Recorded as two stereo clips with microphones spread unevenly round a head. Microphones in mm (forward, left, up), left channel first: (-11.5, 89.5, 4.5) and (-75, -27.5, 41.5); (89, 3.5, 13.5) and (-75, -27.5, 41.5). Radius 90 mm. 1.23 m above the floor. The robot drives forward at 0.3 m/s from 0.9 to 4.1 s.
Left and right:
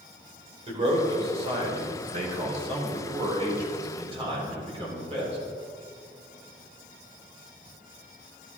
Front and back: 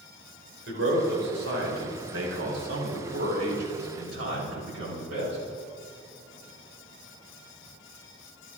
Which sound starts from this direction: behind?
A man speaking, at 0.7 s.